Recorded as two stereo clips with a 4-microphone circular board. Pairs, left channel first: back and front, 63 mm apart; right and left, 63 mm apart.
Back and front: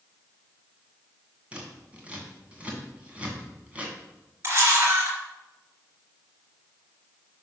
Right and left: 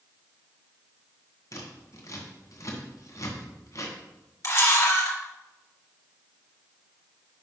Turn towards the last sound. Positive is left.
turn(degrees=-50)